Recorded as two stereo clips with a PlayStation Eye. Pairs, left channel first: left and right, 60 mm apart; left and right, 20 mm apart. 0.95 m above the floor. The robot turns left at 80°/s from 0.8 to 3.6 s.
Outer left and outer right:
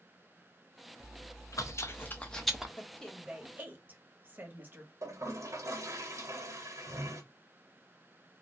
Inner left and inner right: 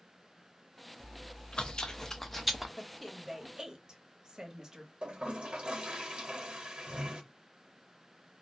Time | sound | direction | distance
1.0 | chewing | 120° left | 0.5 m
2.8 | a woman speaking | 30° left (ahead or behind) | 0.9 m
5.0 | a toilet flushing | 60° right (ahead or behind) | 1.0 m